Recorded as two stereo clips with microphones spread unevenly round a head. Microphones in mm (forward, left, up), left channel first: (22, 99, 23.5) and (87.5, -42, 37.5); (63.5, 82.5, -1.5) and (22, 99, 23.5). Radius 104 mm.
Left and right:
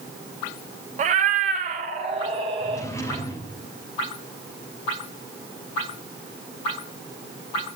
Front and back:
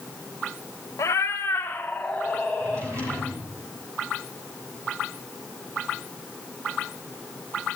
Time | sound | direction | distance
1.0 | a cat meowing | 80° right | 0.9 m
2.6 | a drawer | 165° right | 3 m